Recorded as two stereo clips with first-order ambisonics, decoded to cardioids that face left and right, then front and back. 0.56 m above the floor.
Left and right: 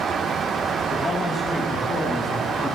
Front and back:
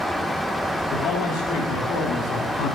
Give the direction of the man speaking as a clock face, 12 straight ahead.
12 o'clock.